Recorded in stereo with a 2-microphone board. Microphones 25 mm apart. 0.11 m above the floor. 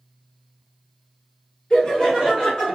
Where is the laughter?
35° left (ahead or behind), 2.0 m; by 2.8 s 20° left (ahead or behind), 1.6 m.